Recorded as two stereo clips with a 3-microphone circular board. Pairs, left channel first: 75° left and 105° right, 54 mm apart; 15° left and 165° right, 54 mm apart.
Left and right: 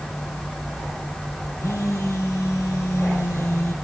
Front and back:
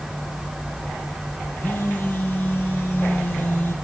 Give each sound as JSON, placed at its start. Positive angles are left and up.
{"t": 1.6, "sound": "a phone buzzing", "azimuth_deg": 65, "distance_m": 3.5}